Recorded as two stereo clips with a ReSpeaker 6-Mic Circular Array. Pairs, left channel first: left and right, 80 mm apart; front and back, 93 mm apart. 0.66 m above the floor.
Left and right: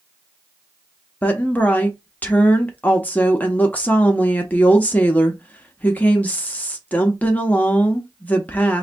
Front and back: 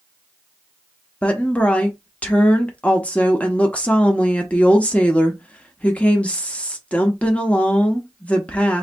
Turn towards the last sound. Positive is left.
turn(degrees=55)